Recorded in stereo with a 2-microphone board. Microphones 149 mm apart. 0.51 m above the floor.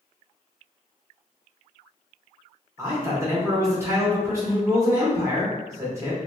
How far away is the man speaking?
About 1.2 m.